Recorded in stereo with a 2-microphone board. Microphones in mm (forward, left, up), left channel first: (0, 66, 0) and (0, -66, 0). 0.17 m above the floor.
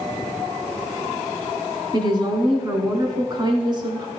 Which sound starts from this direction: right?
A woman speaking, at 1.9 s.